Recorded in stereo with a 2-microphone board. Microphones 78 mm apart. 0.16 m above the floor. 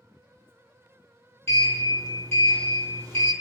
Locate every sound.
1.5 s a sliding door: 30° left (ahead or behind), 0.8 m